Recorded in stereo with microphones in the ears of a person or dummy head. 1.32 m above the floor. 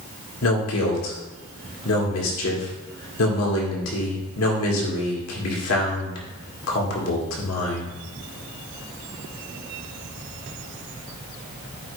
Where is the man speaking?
80° left, 2 m.